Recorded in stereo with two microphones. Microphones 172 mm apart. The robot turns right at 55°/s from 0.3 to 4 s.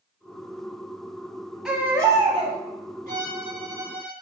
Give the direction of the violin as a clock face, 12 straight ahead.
2 o'clock.